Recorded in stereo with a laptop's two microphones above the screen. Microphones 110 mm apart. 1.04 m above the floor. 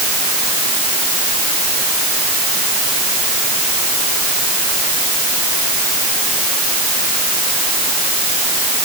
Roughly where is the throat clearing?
I don't hear throat clearing.